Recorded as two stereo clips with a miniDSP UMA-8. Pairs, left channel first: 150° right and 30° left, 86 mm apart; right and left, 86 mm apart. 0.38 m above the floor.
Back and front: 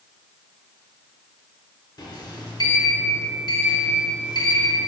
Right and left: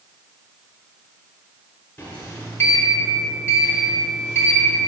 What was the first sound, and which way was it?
A sliding door, 145° right.